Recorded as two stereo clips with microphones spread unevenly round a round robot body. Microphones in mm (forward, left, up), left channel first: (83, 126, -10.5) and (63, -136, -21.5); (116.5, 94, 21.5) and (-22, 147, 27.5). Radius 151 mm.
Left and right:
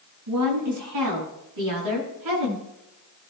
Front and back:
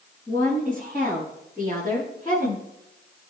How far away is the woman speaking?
About 7 m.